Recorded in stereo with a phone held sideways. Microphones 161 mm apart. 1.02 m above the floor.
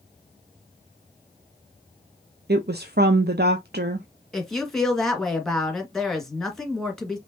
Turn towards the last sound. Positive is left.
turn(degrees=0)  # may be behind; listen again after turning